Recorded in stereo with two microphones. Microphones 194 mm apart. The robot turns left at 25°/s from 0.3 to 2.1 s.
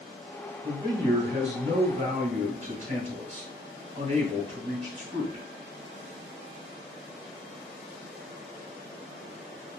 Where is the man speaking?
30° right, 1.9 m; by 5.4 s 70° right, 1.9 m.